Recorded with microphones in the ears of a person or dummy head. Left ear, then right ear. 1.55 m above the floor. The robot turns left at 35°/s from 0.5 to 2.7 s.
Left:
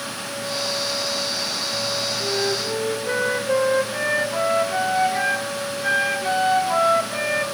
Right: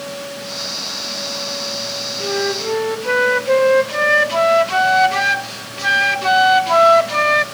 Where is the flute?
20° right (ahead or behind), 1.2 m; by 7.5 s 40° right (ahead or behind), 1.2 m.